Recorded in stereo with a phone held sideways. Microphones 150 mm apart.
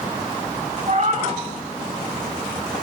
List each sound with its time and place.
0.9 s a cat meowing: 50° right (ahead or behind), 2 m